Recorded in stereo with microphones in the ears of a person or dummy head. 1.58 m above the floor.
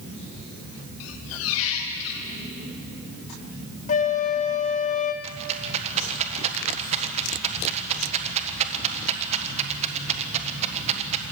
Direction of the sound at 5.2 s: 40° right (ahead or behind).